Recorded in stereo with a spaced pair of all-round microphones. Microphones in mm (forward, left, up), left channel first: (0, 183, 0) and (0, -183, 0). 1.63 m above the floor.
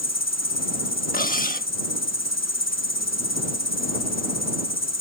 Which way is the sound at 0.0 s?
45° left (ahead or behind).